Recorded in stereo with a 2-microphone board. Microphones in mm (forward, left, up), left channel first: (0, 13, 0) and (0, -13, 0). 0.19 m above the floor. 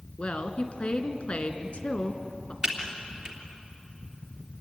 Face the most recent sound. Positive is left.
turn(degrees=-30)  # may be behind; listen again after turning